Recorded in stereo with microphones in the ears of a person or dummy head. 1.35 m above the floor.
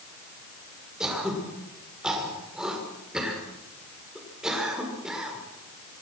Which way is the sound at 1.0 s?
5° right (ahead or behind).